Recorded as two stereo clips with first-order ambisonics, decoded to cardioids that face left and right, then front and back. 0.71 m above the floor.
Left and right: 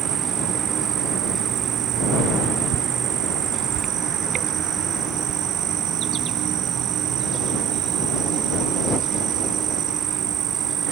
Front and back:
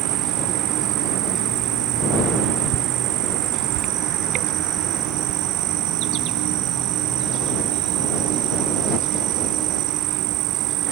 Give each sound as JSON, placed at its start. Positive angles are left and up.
{"t": 0.0, "sound": "an insect", "azimuth_deg": -140}